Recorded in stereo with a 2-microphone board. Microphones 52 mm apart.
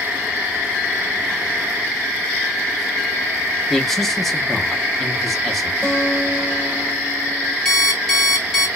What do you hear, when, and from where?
3.7 s a man speaking: 5° left (ahead or behind), 0.9 m
5.8 s a guitar: 5° left (ahead or behind), 2.5 m
7.7 s an alarm clock: 5° left (ahead or behind), 1.8 m